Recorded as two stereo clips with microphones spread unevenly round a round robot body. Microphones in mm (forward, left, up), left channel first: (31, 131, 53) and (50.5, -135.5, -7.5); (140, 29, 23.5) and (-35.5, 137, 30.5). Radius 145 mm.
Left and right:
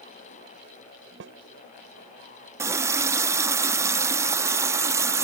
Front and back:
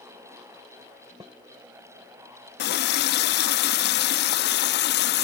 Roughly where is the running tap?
Ahead.